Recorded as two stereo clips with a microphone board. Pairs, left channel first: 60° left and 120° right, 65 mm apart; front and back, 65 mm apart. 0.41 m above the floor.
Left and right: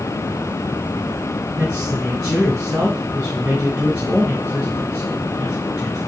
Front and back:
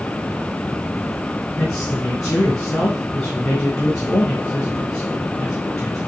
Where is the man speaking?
40° right, 3.5 m.